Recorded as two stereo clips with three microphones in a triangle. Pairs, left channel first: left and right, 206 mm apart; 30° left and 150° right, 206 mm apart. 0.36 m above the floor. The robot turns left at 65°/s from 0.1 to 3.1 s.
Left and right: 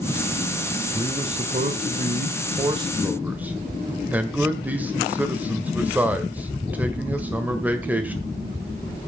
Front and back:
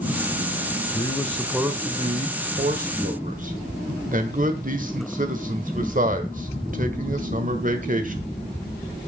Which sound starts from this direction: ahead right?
A man speaking, at 0.9 s.